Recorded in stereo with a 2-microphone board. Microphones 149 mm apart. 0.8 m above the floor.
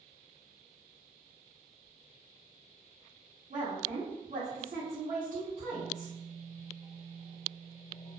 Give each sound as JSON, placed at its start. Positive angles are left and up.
{"t": 3.5, "sound": "a woman speaking", "side_deg": -55, "distance_m": 0.8}